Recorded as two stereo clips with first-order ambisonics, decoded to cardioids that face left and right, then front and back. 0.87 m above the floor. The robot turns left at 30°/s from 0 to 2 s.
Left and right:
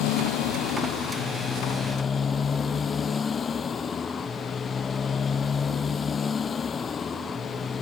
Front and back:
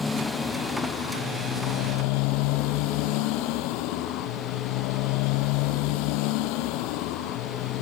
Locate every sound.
0.0 s a motorcycle: 75° left; by 7.8 s 15° left